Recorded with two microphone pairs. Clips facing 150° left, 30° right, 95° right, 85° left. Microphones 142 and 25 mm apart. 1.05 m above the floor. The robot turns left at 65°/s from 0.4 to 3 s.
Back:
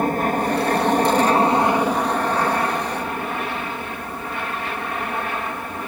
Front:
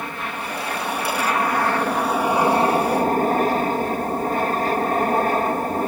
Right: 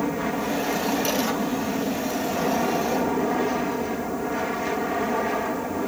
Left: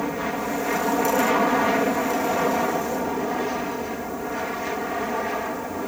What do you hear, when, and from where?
0.0 s an aircraft: 165° left; by 5.9 s 5° right